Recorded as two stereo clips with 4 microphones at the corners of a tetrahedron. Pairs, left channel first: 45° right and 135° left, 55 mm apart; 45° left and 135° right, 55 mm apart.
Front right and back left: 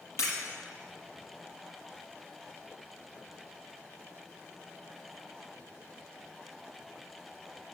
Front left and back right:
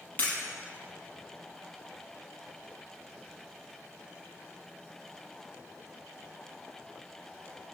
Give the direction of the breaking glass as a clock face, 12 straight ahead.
12 o'clock.